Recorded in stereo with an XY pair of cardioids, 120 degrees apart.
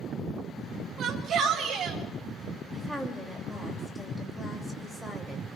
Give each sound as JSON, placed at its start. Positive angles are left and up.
{"t": 1.0, "sound": "a shout", "azimuth_deg": -50, "distance_m": 5.0}
{"t": 2.7, "sound": "a woman speaking", "azimuth_deg": 0, "distance_m": 7.5}